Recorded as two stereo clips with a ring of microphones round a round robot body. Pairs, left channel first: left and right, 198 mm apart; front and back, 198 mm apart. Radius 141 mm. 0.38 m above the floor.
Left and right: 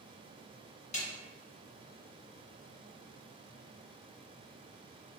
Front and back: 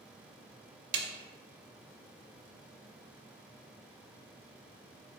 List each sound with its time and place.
0.9 s a snare drum: 150° left, 0.6 m